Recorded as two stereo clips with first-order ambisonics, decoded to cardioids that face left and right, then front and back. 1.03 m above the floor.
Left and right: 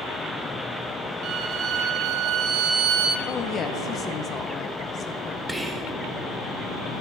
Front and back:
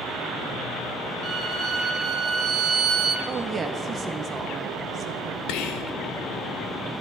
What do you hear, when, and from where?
1.2 s a violin: 130° right, 0.9 m
3.3 s a woman speaking: 130° left, 0.6 m
5.5 s whispering: 10° right, 0.9 m